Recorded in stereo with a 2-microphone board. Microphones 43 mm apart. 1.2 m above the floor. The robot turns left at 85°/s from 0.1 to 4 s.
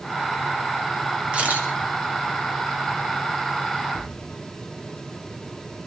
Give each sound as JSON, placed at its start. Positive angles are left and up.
{"t": 1.3, "sound": "a camera shutter", "side_deg": -25, "distance_m": 2.0}
{"t": 3.9, "sound": "a thud", "side_deg": 50, "distance_m": 4.5}